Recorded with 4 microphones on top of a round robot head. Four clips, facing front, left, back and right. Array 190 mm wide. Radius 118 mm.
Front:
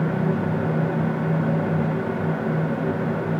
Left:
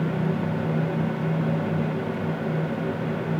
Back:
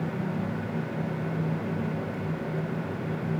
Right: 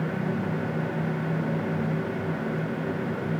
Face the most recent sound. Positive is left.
No sound to turn to.